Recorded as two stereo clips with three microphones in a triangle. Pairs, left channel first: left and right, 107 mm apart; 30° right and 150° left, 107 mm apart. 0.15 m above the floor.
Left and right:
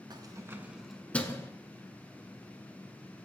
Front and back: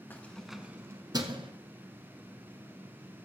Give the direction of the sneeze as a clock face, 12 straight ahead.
No sneeze in this recording.